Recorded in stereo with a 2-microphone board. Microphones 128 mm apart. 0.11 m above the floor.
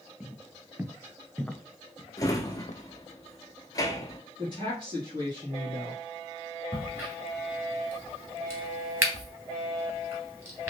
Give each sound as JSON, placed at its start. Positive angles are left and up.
{"t": 0.2, "sound": "footsteps", "side_deg": -25, "distance_m": 1.2}
{"t": 2.2, "sound": "a drawer", "side_deg": 25, "distance_m": 0.8}
{"t": 4.4, "sound": "a woman speaking", "side_deg": -35, "distance_m": 2.0}
{"t": 6.7, "sound": "a crack", "side_deg": -20, "distance_m": 1.7}